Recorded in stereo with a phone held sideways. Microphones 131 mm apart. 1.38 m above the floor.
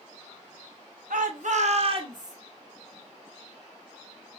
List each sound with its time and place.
1.1 s a shout: 90° right, 0.8 m; by 2.4 s 30° right (ahead or behind), 1.1 m